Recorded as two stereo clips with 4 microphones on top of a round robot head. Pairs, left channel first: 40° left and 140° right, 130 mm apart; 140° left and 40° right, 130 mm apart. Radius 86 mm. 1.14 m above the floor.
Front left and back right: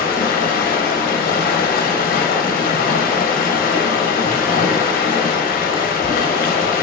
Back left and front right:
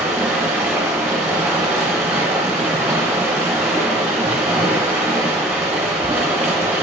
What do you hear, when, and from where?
0.0 s running water: 35° left, 0.8 m